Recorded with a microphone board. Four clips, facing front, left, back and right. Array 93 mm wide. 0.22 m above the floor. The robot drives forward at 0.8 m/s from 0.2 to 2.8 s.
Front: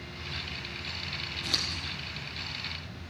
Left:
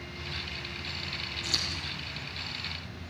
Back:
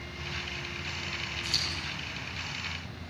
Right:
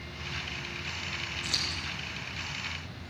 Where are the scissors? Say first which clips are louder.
Even, even; 15° right, 6 m; by 1.8 s 20° right, 6 m.